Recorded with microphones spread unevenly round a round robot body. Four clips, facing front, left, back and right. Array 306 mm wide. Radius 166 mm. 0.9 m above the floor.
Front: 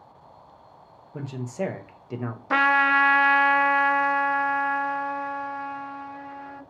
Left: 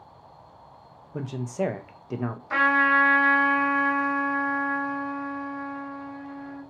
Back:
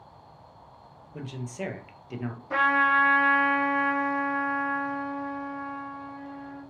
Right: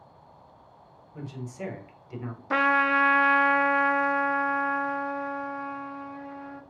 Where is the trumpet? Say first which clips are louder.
Left 1 dB, front 2 dB; 10° right, 0.7 m.